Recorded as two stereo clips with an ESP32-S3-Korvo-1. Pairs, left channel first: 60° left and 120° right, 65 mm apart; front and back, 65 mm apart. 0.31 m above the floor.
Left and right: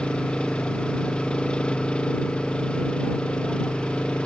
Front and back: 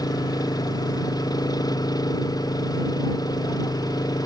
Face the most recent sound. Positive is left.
turn(degrees=-15)